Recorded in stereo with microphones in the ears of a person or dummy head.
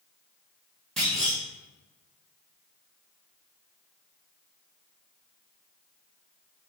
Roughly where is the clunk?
Centre.